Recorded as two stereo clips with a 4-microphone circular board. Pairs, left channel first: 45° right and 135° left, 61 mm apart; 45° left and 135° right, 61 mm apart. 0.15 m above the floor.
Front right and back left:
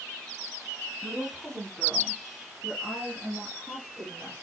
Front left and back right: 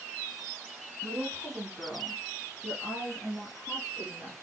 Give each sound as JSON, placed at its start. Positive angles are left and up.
{"t": 1.0, "sound": "a woman speaking", "azimuth_deg": -105, "distance_m": 1.1}